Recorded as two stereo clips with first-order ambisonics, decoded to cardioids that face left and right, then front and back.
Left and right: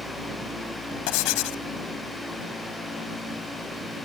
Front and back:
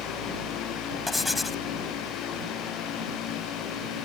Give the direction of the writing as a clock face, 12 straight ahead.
9 o'clock.